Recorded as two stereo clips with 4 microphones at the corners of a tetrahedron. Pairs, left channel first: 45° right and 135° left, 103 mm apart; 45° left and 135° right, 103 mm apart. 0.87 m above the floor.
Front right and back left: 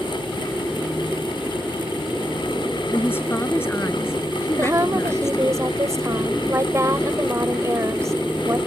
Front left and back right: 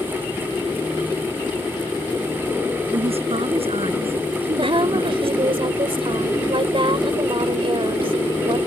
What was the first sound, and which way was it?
A woman speaking, 115° right.